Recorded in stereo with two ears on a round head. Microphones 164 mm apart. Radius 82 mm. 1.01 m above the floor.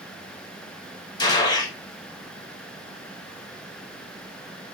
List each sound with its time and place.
1.2 s a gunshot: 25° left (ahead or behind), 0.8 m